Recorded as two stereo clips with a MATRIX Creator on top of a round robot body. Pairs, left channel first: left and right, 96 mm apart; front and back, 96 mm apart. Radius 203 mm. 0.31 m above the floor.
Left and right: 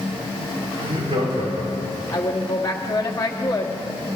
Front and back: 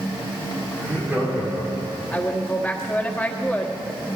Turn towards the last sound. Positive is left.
turn(degrees=70)